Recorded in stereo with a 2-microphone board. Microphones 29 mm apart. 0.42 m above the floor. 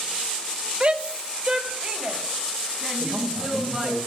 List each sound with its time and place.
0.8 s a shout: 40° right (ahead or behind), 1.2 m; by 4.0 s 5° right (ahead or behind), 5 m
3.0 s a man speaking: 30° right (ahead or behind), 1.7 m